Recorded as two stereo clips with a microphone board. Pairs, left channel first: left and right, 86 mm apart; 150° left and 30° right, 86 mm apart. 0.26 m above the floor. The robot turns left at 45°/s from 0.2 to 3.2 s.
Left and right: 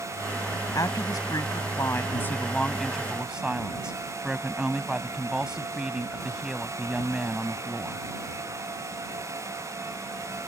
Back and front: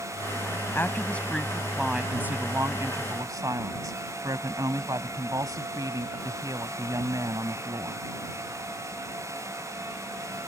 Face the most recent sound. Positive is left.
turn(degrees=-15)